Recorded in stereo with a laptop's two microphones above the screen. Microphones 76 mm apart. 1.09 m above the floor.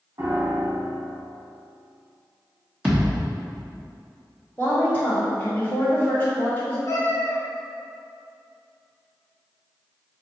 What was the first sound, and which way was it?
A piano, 45° right (ahead or behind).